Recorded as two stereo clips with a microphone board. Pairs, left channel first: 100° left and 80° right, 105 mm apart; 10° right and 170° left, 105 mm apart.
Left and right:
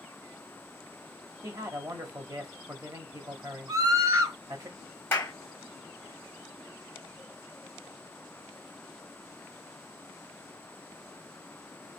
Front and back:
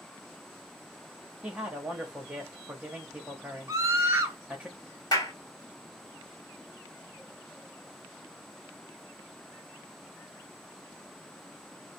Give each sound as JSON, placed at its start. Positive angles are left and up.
{"t": 1.4, "sound": "a man speaking", "azimuth_deg": -115, "distance_m": 1.3}
{"t": 3.7, "sound": "a scream", "azimuth_deg": -125, "distance_m": 1.3}
{"t": 5.1, "sound": "a clap", "azimuth_deg": 35, "distance_m": 1.8}